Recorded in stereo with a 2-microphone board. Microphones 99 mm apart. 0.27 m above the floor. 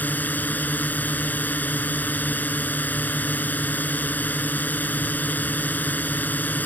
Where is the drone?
15° left (ahead or behind).